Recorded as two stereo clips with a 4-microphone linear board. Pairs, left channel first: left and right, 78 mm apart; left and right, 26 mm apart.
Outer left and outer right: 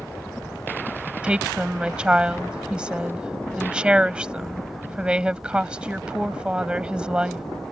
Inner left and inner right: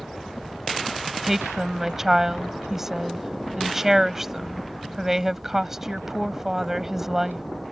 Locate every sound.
0.0 s a helicopter: 15° left (ahead or behind); by 7.7 s 10° left (ahead or behind)
1.2 s a woman speaking: 15° right (ahead or behind)